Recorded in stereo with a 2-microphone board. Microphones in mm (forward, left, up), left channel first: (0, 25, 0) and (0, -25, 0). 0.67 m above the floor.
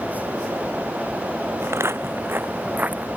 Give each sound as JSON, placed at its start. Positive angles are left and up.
{"t": 1.6, "sound": "footsteps", "side_deg": -65}